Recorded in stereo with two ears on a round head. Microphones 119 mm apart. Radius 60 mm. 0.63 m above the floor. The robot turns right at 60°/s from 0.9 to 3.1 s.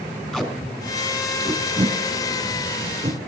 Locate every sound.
0.3 s tape being pulled: 5° left (ahead or behind), 3 m; by 3.2 s 50° right (ahead or behind), 3 m